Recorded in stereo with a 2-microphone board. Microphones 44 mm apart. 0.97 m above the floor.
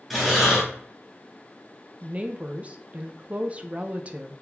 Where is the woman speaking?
35° right (ahead or behind), 0.5 m.